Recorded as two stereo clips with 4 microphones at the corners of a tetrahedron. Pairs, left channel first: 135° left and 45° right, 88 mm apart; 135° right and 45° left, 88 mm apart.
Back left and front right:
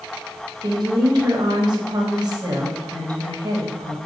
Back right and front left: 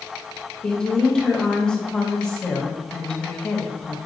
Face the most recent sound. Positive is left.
turn(degrees=-55)